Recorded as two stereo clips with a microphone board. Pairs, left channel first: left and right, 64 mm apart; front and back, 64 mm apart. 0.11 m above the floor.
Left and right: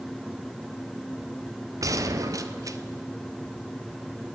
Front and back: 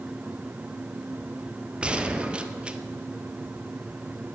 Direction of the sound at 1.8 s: 110° right.